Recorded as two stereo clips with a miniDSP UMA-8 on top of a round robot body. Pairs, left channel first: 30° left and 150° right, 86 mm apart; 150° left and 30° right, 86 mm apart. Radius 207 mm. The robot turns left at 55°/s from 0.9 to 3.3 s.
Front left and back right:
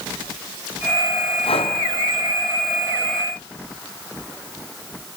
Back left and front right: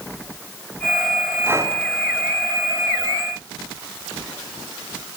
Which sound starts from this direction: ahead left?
Breathing, at 1.4 s.